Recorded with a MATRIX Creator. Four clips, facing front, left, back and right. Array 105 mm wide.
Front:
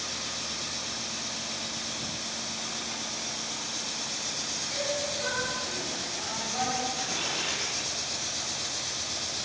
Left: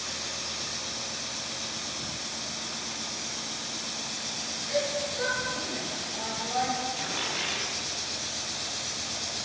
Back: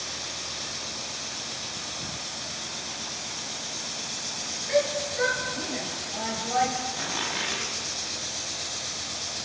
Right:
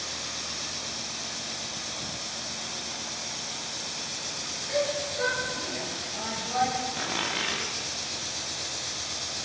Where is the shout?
175° right, 6 m; by 6.7 s straight behind, 7 m.